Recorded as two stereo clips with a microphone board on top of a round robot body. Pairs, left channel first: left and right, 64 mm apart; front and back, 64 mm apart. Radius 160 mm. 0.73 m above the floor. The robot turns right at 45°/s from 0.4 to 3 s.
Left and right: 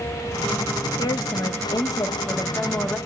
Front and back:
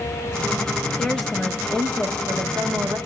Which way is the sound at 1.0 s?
75° left.